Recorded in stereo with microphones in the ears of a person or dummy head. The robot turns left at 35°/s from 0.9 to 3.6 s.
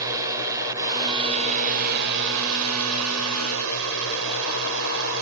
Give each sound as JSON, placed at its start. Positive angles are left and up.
{"t": 0.0, "sound": "a drone", "azimuth_deg": -15}